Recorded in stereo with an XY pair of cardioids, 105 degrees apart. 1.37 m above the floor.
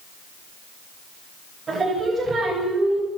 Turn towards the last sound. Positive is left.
turn(degrees=-40)